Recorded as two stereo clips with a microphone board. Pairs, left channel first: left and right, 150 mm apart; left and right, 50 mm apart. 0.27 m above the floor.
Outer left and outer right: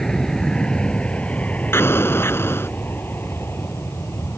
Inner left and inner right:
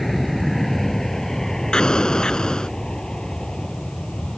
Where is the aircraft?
5° left (ahead or behind); by 4.4 s 15° left (ahead or behind).